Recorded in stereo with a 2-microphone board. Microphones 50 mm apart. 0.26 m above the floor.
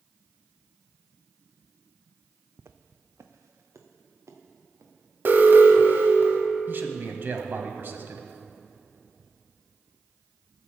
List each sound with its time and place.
2.6 s footsteps: 60° right (ahead or behind), 0.7 m; by 6.0 s 80° right, 3.5 m
5.2 s an alarm: 40° right (ahead or behind), 1.2 m
6.7 s a man speaking: 45° right (ahead or behind), 1.3 m